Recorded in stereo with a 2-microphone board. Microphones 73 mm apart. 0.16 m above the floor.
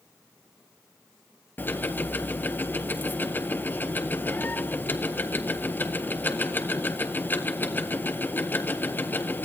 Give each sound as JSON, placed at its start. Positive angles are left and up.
{"t": 1.6, "sound": "ticking", "side_deg": 25, "distance_m": 1.3}